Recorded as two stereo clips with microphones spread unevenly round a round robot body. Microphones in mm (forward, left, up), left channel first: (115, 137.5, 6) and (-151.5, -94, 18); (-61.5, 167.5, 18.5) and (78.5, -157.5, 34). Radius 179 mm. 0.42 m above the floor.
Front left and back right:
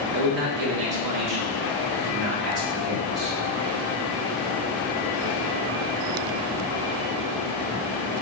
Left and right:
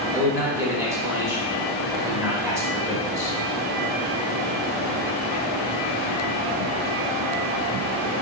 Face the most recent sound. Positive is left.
turn(degrees=-150)